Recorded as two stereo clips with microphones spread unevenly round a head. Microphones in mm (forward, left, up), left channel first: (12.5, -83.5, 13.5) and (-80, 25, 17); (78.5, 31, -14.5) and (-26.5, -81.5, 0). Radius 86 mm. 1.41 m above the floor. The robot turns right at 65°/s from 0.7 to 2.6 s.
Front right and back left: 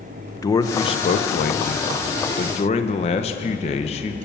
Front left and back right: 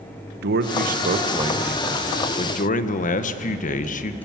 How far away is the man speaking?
About 1.1 m.